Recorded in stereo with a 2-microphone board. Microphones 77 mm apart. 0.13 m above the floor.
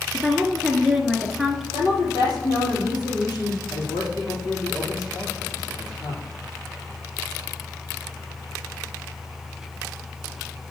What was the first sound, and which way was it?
A woman speaking, 5° right (ahead or behind).